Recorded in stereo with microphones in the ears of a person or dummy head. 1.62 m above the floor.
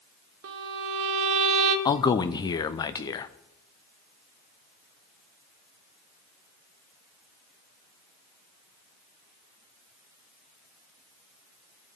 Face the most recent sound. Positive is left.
turn(degrees=20)  # may be behind; listen again after turning